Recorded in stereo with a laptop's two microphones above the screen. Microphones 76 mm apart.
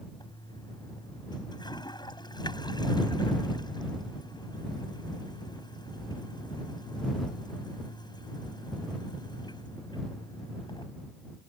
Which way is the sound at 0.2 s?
75° left (ahead or behind).